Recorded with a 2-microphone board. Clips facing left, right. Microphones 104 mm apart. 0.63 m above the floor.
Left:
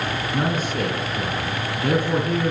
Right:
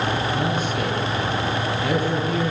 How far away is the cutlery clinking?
I don't hear cutlery clinking.